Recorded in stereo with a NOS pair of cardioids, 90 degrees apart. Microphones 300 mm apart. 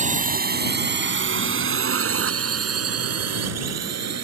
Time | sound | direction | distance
0.0 | a drone | 25° right | ?